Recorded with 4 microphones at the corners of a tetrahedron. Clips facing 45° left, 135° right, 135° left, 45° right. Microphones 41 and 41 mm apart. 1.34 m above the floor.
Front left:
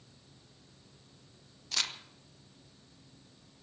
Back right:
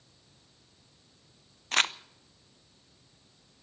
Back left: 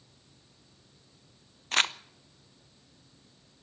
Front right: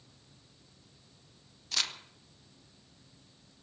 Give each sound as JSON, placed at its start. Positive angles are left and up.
{"t": 1.7, "sound": "crumpling", "azimuth_deg": -175, "distance_m": 0.5}